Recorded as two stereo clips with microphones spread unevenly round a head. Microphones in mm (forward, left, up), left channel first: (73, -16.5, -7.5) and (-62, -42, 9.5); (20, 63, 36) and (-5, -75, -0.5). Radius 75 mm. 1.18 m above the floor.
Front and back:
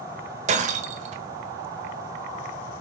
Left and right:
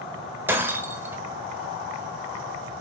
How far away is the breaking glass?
About 1.3 m.